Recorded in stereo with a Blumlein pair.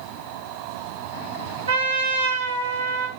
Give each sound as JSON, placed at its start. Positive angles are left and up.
{"t": 1.7, "sound": "a trumpet", "azimuth_deg": -70, "distance_m": 0.8}